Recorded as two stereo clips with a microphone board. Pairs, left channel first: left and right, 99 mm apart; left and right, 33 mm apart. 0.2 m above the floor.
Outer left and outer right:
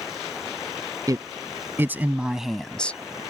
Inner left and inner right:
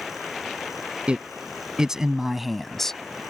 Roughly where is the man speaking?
Right.